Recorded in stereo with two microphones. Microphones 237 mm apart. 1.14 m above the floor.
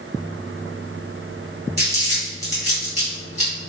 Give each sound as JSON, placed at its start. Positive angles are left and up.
{"t": 1.8, "sound": "crumpling", "side_deg": -30, "distance_m": 1.7}